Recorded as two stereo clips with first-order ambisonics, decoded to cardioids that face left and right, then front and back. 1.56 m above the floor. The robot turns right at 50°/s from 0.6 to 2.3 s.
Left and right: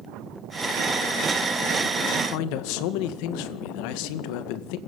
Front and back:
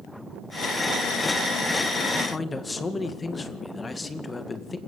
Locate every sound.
2.1 s a man speaking: 70° left, 2 m; by 4.8 s 80° left, 2 m